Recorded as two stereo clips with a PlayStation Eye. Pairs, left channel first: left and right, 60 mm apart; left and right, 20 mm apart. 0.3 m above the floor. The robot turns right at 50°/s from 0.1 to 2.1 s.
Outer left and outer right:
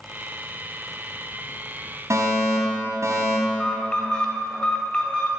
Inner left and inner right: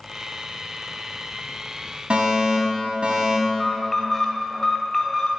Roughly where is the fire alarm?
Right.